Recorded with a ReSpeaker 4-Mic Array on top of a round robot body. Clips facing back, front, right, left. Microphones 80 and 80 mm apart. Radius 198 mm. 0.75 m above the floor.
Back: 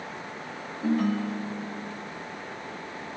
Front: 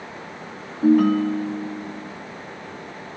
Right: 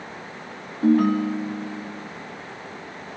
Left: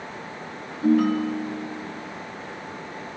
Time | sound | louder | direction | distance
0.8 | a ringtone | front 10 dB, right 1 dB | 40° right | 1.0 m